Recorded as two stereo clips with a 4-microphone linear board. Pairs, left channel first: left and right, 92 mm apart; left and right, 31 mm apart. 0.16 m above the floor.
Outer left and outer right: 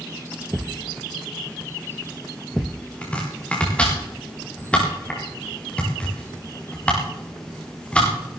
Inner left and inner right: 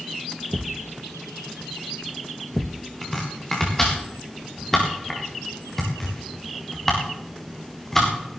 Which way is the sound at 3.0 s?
15° left (ahead or behind).